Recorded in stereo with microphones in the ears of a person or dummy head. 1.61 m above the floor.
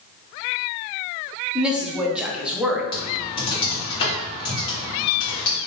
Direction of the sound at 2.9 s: 25° left (ahead or behind).